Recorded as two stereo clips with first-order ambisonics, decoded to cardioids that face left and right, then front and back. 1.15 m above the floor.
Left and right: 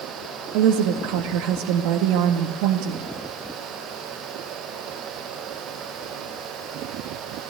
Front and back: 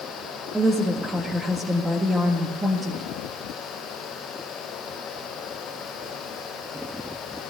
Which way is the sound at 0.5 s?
100° right.